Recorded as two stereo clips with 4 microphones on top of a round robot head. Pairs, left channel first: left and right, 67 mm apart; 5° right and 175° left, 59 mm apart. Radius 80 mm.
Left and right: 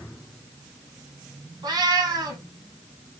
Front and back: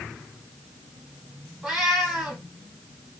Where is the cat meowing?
100° right, 1.5 m.